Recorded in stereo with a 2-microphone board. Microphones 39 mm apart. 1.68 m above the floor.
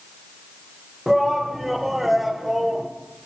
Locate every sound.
1.1 s a shout: centre (ahead or behind), 1.7 m